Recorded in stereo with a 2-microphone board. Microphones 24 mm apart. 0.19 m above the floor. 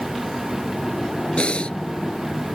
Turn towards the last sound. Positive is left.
turn(degrees=55)  # may be behind; listen again after turning